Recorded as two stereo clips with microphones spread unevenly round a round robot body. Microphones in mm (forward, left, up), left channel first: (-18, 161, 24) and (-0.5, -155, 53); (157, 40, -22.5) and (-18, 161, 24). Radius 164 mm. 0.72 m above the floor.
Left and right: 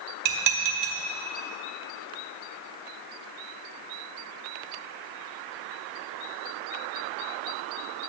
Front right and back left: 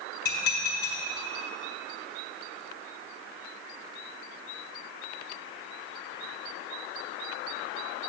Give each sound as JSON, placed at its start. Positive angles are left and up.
{"t": 0.2, "sound": "dishes clattering", "azimuth_deg": -80, "distance_m": 1.2}